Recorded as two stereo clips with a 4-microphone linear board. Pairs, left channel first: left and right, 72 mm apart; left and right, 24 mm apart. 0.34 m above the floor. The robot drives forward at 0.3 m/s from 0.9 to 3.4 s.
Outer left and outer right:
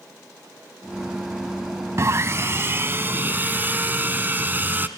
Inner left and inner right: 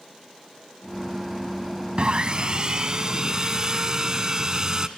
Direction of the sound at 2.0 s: 45° right (ahead or behind).